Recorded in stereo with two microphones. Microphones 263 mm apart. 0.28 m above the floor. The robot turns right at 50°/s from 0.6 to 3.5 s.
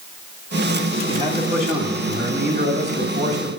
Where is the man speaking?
155° right, 1.6 m; by 3.5 s 30° right, 1.6 m.